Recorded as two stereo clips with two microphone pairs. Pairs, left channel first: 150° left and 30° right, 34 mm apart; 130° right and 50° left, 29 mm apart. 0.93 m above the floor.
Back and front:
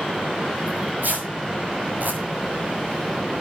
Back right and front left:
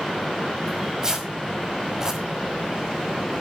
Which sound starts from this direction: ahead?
Tearing paper, at 0.7 s.